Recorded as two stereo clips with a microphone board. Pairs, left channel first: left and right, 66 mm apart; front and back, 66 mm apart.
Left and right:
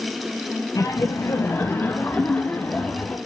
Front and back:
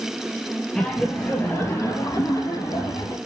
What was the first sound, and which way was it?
Laughter, 80° left.